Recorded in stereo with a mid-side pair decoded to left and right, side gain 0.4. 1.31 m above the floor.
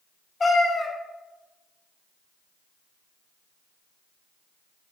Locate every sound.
0.4 s a cat meowing: 40° left, 1.5 m